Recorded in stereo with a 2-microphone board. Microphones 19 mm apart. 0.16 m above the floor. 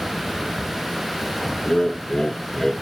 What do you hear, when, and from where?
1.6 s laughter: 50° left (ahead or behind), 1.9 m; by 2.7 s 25° left (ahead or behind), 1.9 m